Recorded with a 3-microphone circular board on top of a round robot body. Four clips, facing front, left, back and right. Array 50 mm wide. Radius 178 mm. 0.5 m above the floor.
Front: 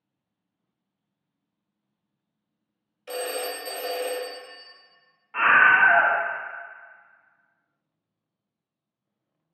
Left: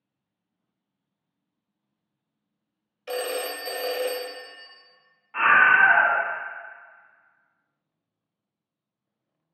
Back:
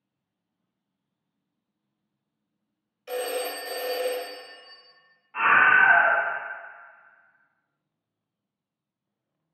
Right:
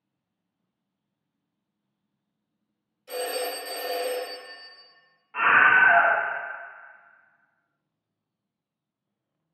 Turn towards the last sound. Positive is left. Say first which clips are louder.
# left 1 dB, front 1 dB
turn(degrees=20)